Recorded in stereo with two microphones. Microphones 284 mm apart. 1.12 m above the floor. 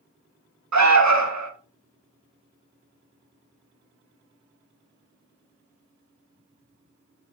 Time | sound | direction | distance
0.7 | an alarm | 70° right (ahead or behind) | 0.6 m